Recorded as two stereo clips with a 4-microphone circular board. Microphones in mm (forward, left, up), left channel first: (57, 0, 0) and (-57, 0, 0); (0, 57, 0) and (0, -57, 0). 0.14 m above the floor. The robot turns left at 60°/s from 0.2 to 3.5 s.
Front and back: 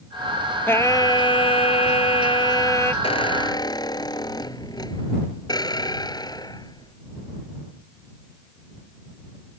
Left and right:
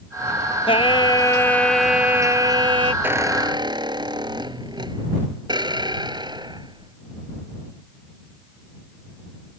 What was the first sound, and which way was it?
Singing, 70° left.